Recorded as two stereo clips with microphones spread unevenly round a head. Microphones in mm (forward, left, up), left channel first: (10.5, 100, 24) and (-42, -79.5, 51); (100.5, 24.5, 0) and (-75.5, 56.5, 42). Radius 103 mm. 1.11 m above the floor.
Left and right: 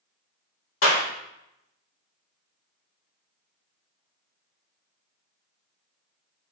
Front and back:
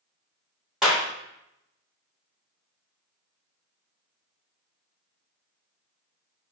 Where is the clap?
85° left, 3 m.